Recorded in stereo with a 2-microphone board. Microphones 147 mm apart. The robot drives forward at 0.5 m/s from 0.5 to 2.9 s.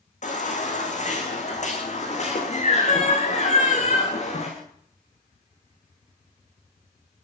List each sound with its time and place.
0.2 s a baby crying: 55° left (ahead or behind), 8 m; by 4.5 s 50° left (ahead or behind), 9 m